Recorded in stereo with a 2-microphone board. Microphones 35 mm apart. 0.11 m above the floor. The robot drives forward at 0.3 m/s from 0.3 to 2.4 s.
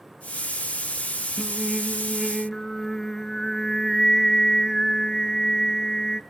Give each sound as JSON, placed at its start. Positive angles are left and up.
{"t": 1.4, "sound": "singing", "side_deg": 10, "distance_m": 1.0}